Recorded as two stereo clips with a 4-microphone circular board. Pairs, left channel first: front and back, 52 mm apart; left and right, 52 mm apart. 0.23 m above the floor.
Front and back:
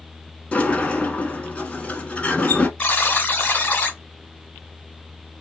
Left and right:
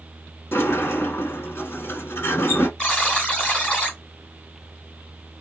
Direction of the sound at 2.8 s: 45° left.